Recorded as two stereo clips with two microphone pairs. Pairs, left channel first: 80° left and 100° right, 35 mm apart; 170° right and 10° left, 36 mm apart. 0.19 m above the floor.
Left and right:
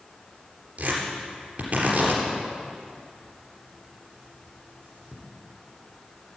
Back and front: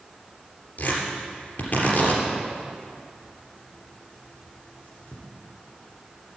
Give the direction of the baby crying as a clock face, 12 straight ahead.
No baby crying in this recording.